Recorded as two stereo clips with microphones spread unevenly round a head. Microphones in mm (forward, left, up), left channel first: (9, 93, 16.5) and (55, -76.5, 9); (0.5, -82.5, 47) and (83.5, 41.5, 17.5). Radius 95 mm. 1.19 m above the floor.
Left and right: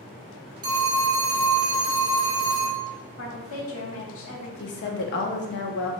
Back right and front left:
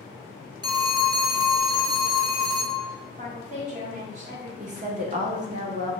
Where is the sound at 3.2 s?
105° left, 1.3 m.